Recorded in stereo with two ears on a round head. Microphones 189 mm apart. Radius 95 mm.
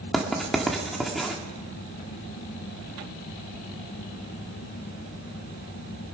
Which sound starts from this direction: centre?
Writing, at 0.1 s.